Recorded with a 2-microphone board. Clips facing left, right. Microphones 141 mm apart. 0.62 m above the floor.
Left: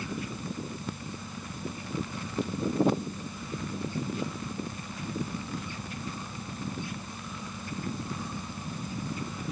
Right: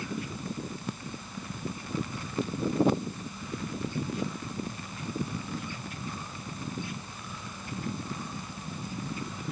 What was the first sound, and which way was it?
Only background noise.